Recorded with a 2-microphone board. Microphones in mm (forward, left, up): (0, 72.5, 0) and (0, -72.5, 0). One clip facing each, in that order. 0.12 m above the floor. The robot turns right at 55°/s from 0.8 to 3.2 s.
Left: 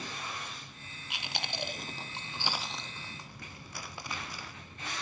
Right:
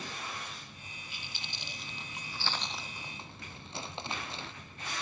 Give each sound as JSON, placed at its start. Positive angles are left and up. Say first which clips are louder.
{"t": 1.1, "sound": "chewing", "louder": "left 12 dB", "side_deg": 75, "distance_m": 0.9}